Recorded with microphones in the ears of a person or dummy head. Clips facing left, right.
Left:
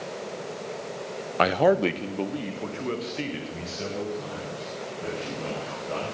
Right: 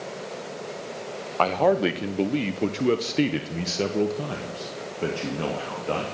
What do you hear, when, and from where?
1.4 s a man speaking: 20° left (ahead or behind), 0.7 m; by 6.0 s 70° right (ahead or behind), 2.5 m